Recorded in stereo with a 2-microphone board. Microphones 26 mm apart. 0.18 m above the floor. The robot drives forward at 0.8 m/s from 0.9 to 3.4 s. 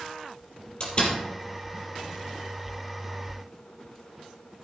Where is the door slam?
35° left (ahead or behind), 4 m.